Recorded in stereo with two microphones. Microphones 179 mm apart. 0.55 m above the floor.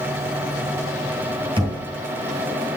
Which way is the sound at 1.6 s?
25° right (ahead or behind).